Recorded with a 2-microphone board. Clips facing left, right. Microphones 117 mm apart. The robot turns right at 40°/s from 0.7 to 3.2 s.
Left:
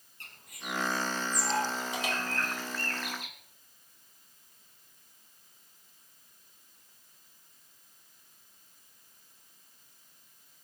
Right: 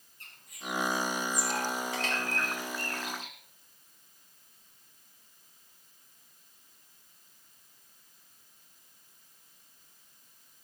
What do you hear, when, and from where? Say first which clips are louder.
0.2 s a bird: right 1 dB; 65° left (ahead or behind), 3.5 m; by 3.4 s 30° right (ahead or behind), 3.5 m